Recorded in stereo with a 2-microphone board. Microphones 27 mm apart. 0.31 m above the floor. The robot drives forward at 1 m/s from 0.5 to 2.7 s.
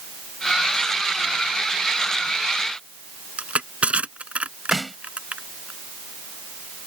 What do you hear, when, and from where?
3.4 s crushing: 45° right (ahead or behind)
4.7 s a snare drum: centre (ahead or behind)